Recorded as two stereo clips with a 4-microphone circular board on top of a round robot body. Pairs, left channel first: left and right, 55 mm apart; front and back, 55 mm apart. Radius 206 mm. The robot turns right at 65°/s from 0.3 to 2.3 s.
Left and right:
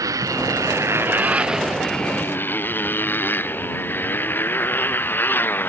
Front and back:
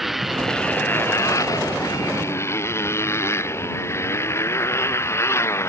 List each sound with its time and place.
0.0 s a motorcycle: 90° right; by 5.7 s 40° left